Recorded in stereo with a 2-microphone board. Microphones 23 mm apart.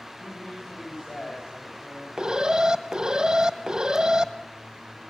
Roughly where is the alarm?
Right.